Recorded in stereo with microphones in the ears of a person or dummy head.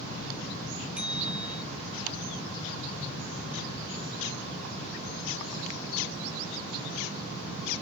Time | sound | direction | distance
1.0 | a bicycle bell | 10° right (ahead or behind) | ?